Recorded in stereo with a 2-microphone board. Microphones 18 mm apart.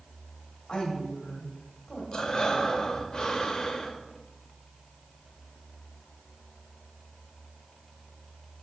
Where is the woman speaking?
65° left (ahead or behind), 2 m.